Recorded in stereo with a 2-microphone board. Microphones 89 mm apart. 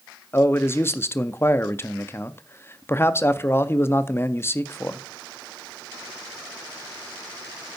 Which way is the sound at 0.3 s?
25° left (ahead or behind).